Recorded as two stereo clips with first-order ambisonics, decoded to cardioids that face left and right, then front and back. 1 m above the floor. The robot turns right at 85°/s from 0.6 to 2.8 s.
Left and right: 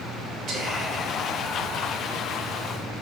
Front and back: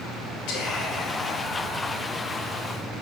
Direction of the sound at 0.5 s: 35° right.